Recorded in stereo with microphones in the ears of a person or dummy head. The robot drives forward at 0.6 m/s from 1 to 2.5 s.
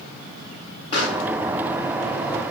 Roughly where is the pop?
Left.